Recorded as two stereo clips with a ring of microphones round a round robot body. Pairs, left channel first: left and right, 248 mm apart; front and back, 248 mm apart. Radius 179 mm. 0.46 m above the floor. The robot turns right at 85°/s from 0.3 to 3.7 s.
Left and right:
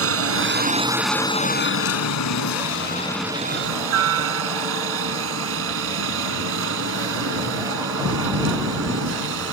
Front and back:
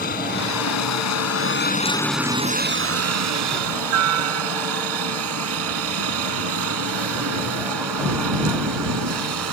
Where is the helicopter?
65° right; by 9.5 s 140° right.